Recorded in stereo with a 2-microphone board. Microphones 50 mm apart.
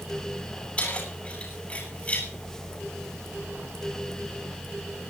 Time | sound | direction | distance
0.8 | keys jangling | 30° left (ahead or behind) | 9 m